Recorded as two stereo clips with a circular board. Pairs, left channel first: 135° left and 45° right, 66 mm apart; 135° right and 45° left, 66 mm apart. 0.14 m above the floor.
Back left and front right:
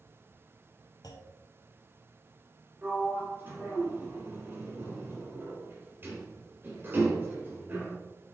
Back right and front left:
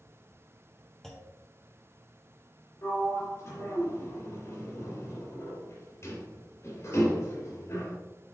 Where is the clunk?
140° left, 1.4 m.